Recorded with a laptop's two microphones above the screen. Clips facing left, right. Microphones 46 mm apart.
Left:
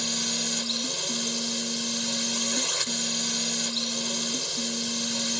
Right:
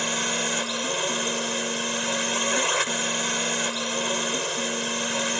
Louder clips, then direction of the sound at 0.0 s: Right 6 dB; 40° right (ahead or behind).